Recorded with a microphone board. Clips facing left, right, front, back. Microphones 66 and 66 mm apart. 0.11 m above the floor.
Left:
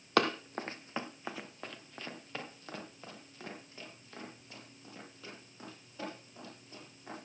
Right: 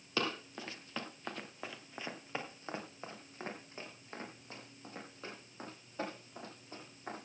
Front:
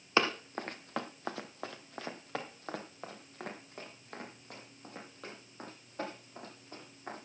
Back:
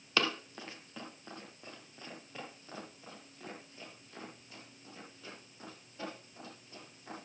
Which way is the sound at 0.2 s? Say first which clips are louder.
Left 7 dB, front 3 dB; 65° left.